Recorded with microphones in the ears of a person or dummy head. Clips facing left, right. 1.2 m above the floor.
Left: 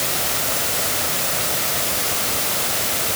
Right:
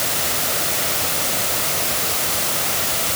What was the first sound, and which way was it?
Only background noise.